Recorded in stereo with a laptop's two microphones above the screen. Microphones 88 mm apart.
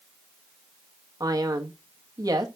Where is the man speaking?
40° right (ahead or behind), 1.1 m.